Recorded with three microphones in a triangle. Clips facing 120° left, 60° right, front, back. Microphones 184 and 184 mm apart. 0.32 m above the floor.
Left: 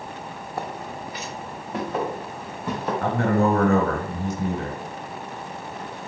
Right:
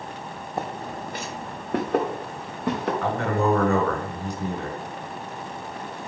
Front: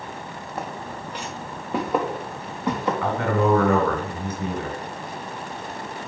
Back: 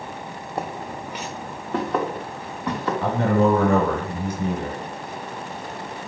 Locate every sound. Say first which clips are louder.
0.6 s footsteps: right 1 dB, back 3 dB; 130° right, 0.5 m; by 2.9 s 70° right, 1.7 m
3.0 s a man speaking: left 4 dB, back 4 dB; 125° left, 1.2 m